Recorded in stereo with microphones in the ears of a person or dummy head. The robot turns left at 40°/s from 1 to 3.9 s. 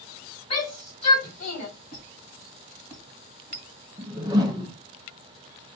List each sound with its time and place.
0.5 s a shout: 25° left (ahead or behind), 1.6 m; by 1.7 s 55° left (ahead or behind), 1.6 m
1.9 s a squeak: 50° left (ahead or behind), 1.8 m; by 3.7 s 25° left (ahead or behind), 1.8 m
4.0 s a whoosh: 10° right (ahead or behind), 0.6 m